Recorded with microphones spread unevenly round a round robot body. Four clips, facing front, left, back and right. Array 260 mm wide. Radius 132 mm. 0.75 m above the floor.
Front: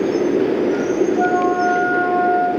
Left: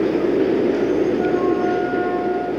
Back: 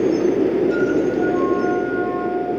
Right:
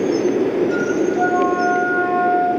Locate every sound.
1.2 s a flute: 45° right, 5.5 m